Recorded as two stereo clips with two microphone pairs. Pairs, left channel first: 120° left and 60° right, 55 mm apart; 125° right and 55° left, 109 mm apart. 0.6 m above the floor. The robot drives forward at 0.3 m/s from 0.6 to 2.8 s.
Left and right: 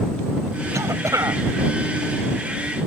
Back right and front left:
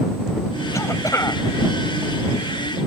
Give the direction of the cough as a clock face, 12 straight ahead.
2 o'clock.